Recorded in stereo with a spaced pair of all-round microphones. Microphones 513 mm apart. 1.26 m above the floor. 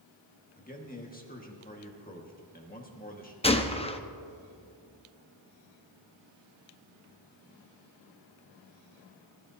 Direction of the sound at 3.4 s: 15° left (ahead or behind).